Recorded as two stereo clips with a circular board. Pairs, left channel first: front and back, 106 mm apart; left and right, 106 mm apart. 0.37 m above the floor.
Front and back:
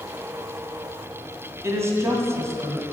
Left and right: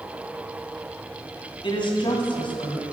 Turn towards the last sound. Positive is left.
turn(degrees=120)